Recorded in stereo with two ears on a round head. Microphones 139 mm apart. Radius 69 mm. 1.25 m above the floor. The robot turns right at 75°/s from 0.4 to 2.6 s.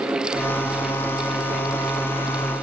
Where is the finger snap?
I don't hear a finger snap.